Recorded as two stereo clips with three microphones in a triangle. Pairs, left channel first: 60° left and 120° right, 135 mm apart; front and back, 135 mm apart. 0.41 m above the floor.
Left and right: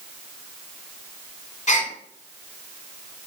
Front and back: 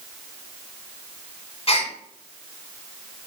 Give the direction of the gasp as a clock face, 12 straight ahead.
11 o'clock.